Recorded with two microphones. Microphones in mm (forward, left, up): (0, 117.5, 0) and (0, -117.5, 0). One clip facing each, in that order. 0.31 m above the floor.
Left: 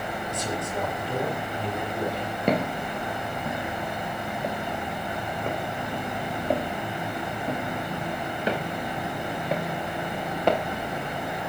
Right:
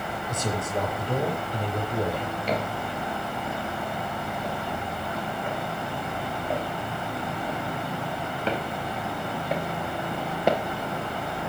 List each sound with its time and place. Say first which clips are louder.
0.3 s a man speaking: right 3 dB; 50° right (ahead or behind), 5 m
2.5 s footsteps: left 6 dB; 55° left (ahead or behind), 5.5 m; by 10.6 s 10° right (ahead or behind), 3 m